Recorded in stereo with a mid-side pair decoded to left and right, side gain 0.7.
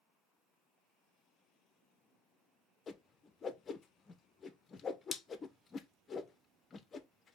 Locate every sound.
2.9 s a whoosh: 30° left, 0.7 m